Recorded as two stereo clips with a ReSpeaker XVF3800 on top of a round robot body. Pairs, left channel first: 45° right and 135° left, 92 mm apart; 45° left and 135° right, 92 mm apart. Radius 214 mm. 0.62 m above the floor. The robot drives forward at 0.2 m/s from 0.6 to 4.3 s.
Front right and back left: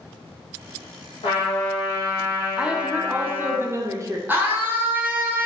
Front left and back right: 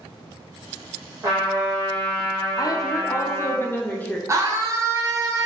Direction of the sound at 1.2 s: 70° right.